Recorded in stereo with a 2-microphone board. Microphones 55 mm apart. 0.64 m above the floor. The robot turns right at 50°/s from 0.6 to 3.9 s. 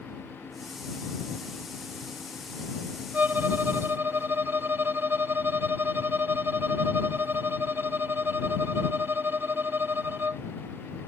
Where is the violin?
130° right; by 10.4 s 90° right.